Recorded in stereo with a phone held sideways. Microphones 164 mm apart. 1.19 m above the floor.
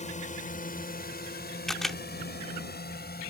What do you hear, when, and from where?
0.0 s a drone: 45° left (ahead or behind); by 3.3 s 75° left (ahead or behind)
1.7 s a camera shutter: centre (ahead or behind)